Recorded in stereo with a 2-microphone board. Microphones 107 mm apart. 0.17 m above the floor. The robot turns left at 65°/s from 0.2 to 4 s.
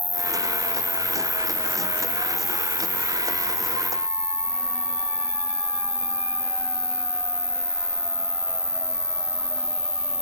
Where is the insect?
105° right; by 10.2 s 5° left.